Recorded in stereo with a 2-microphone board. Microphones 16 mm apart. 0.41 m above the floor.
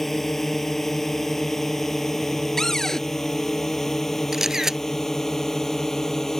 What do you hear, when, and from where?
0.0 s a drone: 10° left (ahead or behind); by 6.4 s 20° left (ahead or behind)
2.6 s a cupboard door: 30° left (ahead or behind)
4.3 s a camera shutter: 20° right (ahead or behind)